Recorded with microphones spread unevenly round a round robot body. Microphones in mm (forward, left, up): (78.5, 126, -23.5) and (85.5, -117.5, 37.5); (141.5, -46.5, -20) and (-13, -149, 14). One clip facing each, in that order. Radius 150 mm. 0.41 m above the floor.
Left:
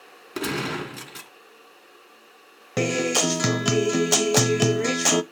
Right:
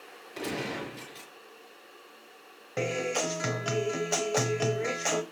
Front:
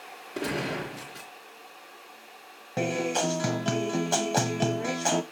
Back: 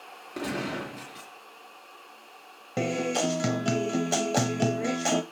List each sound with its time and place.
0.3 s a gunshot: 125° left, 2.5 m
2.8 s a guitar: 130° left, 0.5 m